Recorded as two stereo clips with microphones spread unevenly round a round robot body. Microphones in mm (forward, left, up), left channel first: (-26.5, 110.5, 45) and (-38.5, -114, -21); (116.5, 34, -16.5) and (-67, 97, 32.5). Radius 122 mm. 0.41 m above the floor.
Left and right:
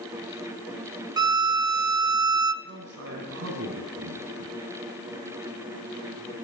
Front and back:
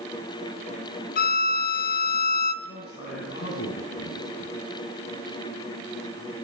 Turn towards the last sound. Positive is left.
turn(degrees=-60)